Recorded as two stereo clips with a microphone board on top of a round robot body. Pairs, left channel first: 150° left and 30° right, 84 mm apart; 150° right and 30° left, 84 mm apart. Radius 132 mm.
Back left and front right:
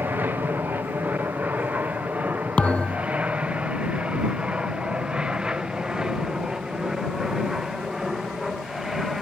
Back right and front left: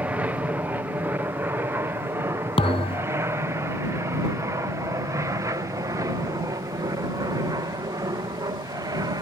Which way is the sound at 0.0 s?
15° right.